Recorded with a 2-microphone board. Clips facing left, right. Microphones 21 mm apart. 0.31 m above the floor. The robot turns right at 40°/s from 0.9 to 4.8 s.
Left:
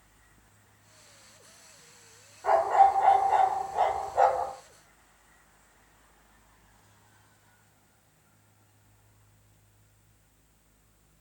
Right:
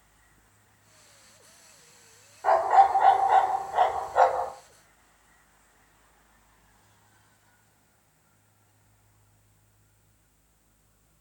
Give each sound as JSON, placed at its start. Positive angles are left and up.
{"t": 2.4, "sound": "a dog barking", "azimuth_deg": -140, "distance_m": 0.7}